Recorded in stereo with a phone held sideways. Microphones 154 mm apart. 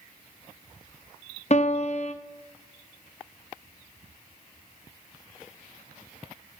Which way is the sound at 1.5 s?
45° left (ahead or behind).